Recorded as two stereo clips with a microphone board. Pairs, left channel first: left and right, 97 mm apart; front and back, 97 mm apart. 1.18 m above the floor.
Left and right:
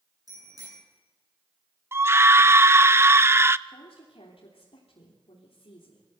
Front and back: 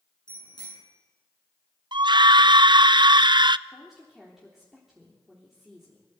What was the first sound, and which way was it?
A bicycle bell, 40° right.